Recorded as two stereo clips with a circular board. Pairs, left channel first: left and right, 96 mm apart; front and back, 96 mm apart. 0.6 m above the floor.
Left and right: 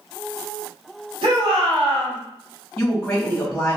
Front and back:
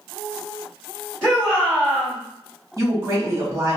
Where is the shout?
80° right, 1.7 m.